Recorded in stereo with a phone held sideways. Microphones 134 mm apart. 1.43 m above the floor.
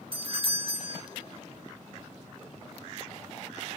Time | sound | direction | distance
0.1 | a doorbell | 45° right (ahead or behind) | 1.9 m